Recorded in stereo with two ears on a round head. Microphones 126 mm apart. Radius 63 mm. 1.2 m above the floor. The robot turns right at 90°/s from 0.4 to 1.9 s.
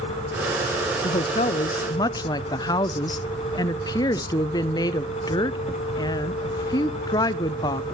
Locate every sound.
1.0 s a woman speaking: 60° left, 0.5 m; by 7.8 s 140° left, 0.5 m